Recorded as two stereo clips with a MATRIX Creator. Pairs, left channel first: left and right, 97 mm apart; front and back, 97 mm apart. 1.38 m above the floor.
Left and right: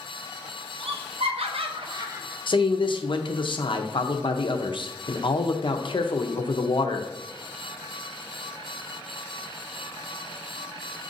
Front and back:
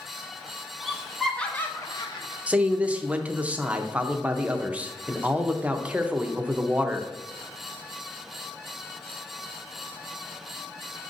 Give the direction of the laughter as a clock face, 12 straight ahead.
3 o'clock.